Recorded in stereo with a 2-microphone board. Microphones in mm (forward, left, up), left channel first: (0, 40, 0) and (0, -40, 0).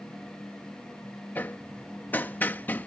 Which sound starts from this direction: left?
Hammering, at 1.4 s.